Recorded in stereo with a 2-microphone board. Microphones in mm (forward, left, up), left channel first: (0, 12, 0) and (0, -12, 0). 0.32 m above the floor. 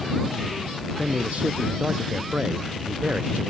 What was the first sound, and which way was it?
A man speaking, 85° right.